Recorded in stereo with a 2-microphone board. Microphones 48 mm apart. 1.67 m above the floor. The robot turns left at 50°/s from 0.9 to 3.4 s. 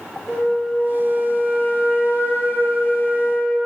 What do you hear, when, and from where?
0.3 s a flute: 175° left, 2.5 m; by 3.6 s 50° left, 2.5 m